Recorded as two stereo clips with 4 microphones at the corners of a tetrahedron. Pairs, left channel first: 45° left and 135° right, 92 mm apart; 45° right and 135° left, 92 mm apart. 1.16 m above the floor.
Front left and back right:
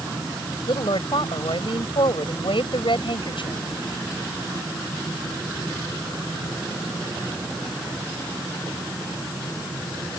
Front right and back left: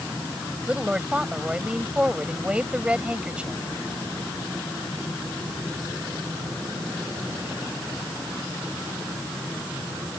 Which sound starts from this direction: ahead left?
A woman speaking, at 0.7 s.